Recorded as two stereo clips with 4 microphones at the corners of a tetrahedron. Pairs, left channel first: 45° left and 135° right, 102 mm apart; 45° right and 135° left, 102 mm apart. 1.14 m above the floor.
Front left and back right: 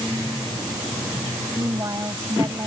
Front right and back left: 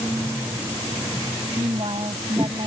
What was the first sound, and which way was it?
A woman speaking, 170° left.